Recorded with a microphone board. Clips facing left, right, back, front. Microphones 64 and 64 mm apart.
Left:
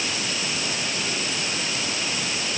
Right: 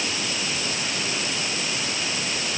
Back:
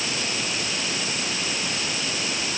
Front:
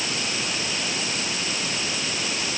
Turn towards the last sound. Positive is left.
No sound to turn to.